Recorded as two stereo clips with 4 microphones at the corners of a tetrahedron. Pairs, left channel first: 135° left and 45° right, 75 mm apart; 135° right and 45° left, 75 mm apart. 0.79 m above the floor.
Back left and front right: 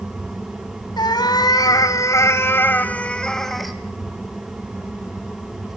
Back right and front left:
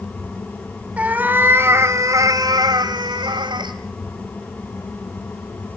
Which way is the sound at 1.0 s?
115° left.